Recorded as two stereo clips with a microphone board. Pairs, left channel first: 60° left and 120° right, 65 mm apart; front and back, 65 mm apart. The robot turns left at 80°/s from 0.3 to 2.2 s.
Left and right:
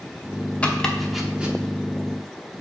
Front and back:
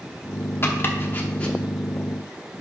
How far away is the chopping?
About 0.8 m.